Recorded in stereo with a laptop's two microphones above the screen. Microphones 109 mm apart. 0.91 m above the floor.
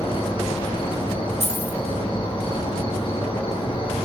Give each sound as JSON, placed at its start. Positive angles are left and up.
{"t": 0.0, "sound": "an insect", "side_deg": 55, "distance_m": 2.0}
{"t": 1.4, "sound": "keys jangling", "side_deg": -70, "distance_m": 1.7}